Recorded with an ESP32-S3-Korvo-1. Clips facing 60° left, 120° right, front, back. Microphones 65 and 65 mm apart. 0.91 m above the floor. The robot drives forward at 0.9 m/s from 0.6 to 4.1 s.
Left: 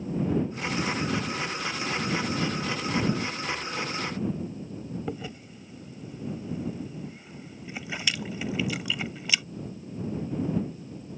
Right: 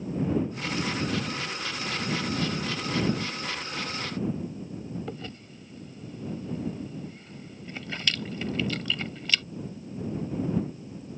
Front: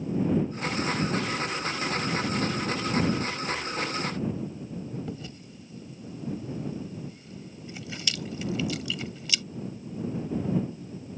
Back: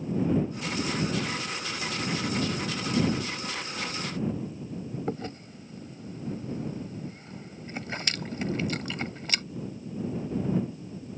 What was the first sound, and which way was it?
Chewing, 140° left.